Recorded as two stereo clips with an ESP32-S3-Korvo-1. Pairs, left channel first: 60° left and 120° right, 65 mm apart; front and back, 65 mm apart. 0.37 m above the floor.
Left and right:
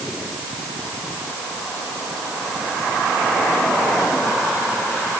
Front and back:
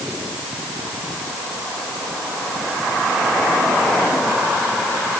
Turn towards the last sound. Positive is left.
No sound to turn to.